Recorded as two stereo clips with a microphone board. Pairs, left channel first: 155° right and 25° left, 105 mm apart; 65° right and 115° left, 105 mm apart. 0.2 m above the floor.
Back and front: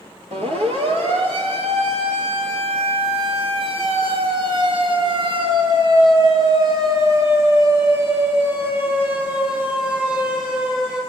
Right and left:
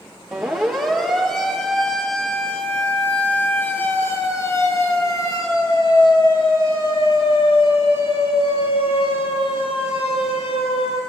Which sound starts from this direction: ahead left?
A siren, at 0.3 s.